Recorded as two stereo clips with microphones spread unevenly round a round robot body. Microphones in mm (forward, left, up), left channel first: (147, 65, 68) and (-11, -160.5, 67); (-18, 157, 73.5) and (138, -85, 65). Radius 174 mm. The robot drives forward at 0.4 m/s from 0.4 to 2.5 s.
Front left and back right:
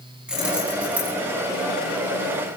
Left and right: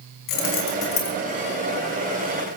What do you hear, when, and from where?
0.3 s keys jangling: 150° left, 4 m